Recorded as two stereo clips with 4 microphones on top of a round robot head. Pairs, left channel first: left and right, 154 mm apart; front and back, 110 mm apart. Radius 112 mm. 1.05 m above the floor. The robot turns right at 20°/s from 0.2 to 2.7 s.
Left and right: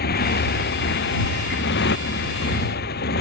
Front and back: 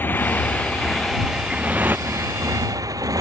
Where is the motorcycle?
75° left; by 3.2 s 125° left.